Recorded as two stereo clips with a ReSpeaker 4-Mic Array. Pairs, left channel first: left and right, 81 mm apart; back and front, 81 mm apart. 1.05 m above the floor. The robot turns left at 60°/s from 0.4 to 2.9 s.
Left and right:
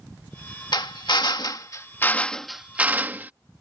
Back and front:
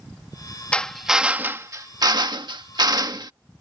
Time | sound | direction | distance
0.7 | a drill | 105° left | ?